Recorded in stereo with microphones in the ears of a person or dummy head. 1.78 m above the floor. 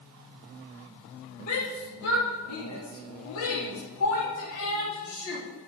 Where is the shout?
70° left (ahead or behind), 3 m; by 5.5 s 65° left (ahead or behind), 4 m.